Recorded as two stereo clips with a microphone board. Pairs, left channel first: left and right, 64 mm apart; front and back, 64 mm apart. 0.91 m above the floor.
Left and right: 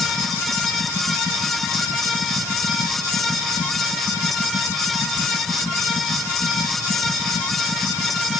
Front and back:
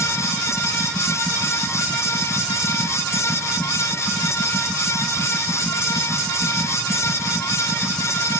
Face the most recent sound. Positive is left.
No sound to turn to.